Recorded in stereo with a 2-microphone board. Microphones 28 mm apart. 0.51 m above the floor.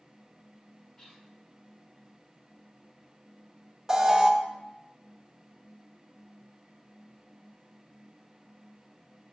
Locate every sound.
1.0 s whispering: 25° left (ahead or behind), 1.3 m
3.9 s an alarm: 20° right (ahead or behind), 0.7 m